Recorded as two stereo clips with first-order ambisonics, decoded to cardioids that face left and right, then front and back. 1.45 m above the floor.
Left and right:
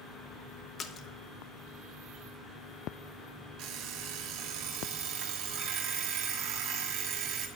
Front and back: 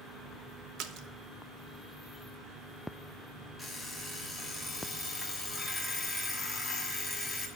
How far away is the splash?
About 0.7 m.